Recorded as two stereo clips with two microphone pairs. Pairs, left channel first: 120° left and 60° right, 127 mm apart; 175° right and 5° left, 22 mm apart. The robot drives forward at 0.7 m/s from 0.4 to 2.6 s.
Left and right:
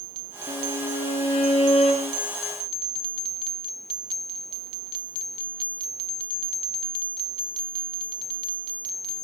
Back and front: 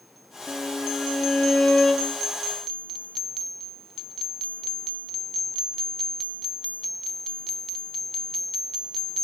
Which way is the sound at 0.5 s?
145° left.